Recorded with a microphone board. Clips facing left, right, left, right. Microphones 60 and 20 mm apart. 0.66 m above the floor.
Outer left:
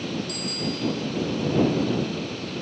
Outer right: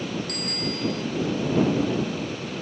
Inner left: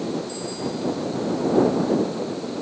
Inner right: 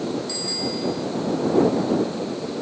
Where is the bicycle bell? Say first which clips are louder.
Even, inner right 3 dB; 50° right (ahead or behind).